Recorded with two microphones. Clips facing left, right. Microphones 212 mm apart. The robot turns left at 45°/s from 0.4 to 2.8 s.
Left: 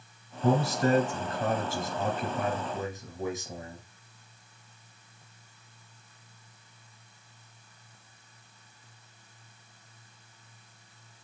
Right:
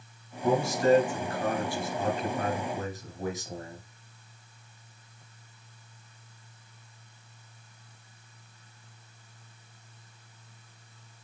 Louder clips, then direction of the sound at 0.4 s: Right 1 dB; 130° left.